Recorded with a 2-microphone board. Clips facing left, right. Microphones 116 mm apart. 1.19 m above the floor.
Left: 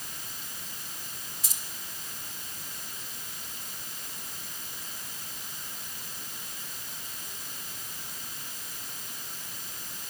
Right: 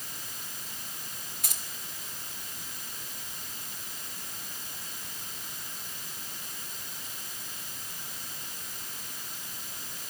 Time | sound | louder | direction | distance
1.4 | keys jangling | right 2 dB | 60° right (ahead or behind) | 3 m